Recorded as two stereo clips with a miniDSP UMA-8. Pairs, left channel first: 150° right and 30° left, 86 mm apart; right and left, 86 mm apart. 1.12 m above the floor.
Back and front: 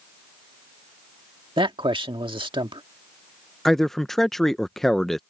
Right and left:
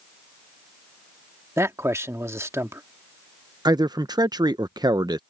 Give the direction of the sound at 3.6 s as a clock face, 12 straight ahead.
8 o'clock.